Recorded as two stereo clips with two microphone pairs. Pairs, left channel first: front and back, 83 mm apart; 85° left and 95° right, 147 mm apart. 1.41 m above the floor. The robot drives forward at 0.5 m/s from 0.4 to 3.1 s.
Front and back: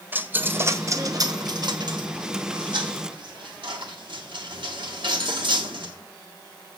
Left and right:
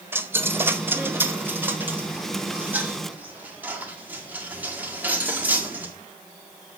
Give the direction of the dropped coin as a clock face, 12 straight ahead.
5 o'clock.